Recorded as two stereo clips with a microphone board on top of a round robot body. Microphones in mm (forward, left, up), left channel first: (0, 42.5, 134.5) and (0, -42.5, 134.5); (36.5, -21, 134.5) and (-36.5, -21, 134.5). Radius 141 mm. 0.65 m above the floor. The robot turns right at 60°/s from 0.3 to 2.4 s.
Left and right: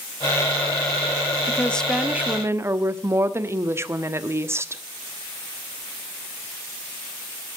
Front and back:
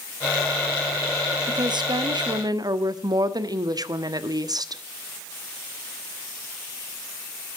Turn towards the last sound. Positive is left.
turn(degrees=-150)